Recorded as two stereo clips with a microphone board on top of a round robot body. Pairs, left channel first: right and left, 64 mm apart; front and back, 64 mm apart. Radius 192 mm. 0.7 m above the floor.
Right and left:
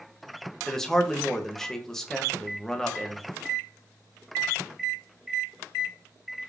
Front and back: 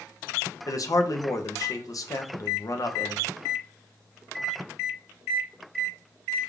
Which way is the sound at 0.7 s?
10° right.